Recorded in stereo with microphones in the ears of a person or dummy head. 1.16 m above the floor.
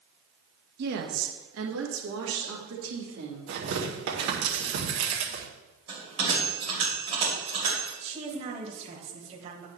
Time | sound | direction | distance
0.8 | a woman speaking | 55° right (ahead or behind) | 1.2 m
3.5 | tearing paper | 80° right | 2 m
5.9 | a bell | 40° right (ahead or behind) | 3 m
8.0 | a woman speaking | 30° right (ahead or behind) | 1.5 m